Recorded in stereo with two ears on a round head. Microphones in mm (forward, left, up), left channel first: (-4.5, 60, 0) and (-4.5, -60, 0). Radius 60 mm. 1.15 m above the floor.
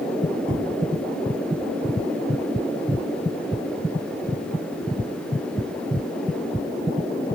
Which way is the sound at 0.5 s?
45° right (ahead or behind).